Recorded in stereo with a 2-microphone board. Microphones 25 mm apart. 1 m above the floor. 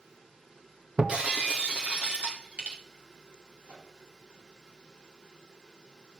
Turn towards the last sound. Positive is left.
turn(degrees=-80)